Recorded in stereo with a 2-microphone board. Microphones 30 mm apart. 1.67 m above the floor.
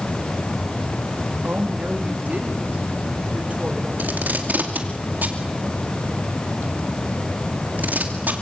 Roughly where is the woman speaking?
Right.